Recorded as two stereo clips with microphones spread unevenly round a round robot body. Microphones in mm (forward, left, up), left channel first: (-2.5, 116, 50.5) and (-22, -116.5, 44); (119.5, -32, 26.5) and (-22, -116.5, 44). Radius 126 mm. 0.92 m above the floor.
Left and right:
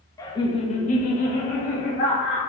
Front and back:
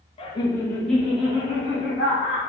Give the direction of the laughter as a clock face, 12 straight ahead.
12 o'clock.